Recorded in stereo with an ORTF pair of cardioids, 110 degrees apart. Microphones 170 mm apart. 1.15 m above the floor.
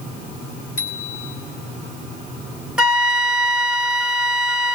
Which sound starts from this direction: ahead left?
A bicycle bell, at 0.8 s.